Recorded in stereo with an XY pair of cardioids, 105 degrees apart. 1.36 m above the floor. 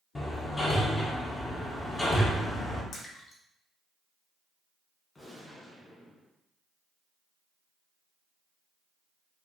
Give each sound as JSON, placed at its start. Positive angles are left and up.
{"t": 0.1, "sound": "hammering", "azimuth_deg": 25, "distance_m": 1.1}
{"t": 2.9, "sound": "a splash", "azimuth_deg": 50, "distance_m": 1.0}
{"t": 5.2, "sound": "a gunshot", "azimuth_deg": 20, "distance_m": 1.6}